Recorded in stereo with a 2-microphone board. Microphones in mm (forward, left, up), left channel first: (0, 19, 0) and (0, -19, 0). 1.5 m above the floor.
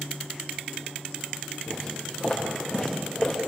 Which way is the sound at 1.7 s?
5° left (ahead or behind).